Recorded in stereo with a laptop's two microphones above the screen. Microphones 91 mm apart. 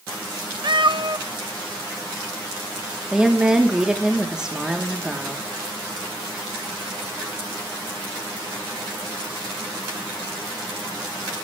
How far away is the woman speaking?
About 1.0 m.